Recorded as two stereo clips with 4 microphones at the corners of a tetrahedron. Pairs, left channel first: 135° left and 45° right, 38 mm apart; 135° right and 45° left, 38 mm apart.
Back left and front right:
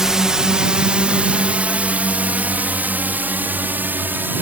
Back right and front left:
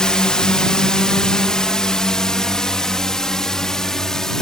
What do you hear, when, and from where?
0.0 s a drone: 100° right; by 4.4 s 60° right